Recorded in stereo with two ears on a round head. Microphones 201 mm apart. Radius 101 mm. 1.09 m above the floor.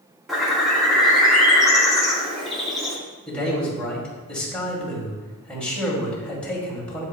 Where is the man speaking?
5° left (ahead or behind), 2.5 m.